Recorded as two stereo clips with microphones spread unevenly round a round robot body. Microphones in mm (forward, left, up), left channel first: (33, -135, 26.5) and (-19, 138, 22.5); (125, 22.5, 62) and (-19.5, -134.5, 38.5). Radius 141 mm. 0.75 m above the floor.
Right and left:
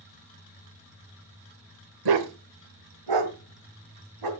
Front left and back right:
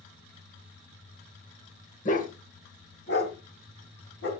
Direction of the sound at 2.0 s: 110° left.